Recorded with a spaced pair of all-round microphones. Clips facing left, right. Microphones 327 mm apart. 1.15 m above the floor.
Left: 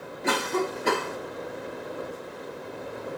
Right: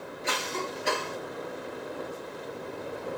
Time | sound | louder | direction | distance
0.2 | a cough | left 8 dB | 65° left (ahead or behind) | ?